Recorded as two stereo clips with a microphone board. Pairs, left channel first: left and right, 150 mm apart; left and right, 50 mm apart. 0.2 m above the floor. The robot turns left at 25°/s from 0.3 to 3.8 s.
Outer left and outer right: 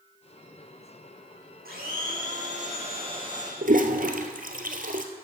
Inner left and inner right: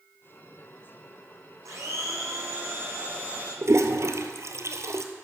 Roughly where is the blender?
Right.